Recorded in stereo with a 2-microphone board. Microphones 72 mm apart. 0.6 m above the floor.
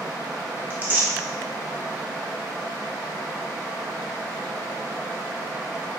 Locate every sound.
0.7 s tearing paper: 25° right (ahead or behind), 0.8 m